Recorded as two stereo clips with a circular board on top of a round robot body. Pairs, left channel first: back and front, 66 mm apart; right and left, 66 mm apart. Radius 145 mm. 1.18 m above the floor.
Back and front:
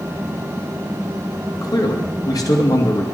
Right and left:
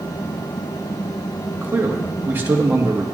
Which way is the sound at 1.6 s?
150° left.